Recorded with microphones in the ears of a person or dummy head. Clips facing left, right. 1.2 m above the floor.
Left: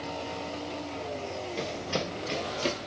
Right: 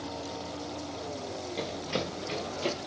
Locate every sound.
1.6 s running footsteps: centre (ahead or behind), 1.7 m; by 2.9 s 20° left (ahead or behind), 1.7 m